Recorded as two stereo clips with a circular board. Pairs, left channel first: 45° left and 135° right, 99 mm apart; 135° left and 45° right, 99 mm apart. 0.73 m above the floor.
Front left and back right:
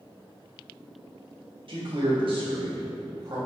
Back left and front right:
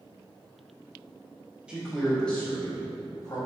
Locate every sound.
1.7 s a man speaking: 125° right, 0.9 m; by 3.4 s 175° right, 1.2 m